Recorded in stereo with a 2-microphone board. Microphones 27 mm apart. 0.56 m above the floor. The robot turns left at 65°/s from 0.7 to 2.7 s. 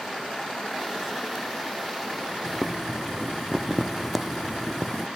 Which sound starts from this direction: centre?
Boiling, at 2.5 s.